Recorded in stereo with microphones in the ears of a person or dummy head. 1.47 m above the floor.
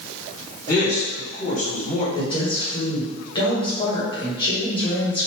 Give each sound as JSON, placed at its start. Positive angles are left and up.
{"t": 0.7, "sound": "a man speaking", "side_deg": 20, "distance_m": 1.4}
{"t": 2.1, "sound": "a woman speaking", "side_deg": 30, "distance_m": 1.4}